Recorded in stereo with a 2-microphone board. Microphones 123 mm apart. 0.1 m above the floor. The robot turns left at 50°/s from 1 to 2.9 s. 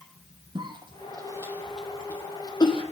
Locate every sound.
0.6 s a cough: 40° right (ahead or behind), 3.5 m; by 2.8 s 45° left (ahead or behind), 3.5 m